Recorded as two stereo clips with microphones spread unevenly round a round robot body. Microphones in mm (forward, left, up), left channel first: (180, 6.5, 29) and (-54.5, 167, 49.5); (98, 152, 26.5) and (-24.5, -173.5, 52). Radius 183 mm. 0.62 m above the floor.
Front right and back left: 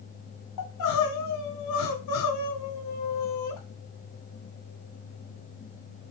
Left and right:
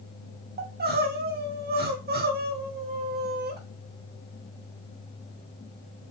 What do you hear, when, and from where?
0.6 s crying: 45° right, 2.0 m